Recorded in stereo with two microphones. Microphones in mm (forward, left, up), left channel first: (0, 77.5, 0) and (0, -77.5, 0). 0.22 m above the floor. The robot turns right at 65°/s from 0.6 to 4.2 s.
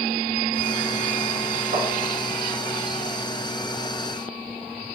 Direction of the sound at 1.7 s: 45° right (ahead or behind).